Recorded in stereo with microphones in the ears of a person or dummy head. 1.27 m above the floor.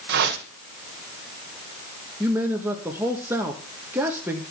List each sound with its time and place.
0.1 s a whoosh: 50° right (ahead or behind), 1.4 m
2.2 s a man speaking: 10° right (ahead or behind), 1.6 m